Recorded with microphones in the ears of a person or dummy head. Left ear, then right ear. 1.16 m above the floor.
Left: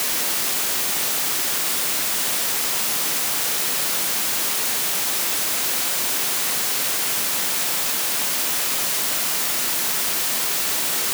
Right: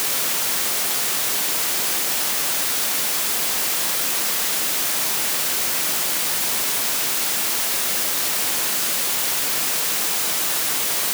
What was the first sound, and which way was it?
Only background noise.